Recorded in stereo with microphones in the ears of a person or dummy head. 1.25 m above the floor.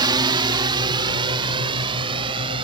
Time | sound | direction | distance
0.0 | a drone | 25° right (ahead or behind) | ?